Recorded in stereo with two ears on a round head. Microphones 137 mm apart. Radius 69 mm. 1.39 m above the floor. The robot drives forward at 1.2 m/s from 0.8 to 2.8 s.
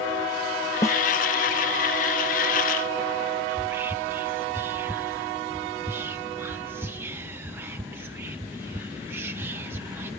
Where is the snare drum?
20° left (ahead or behind).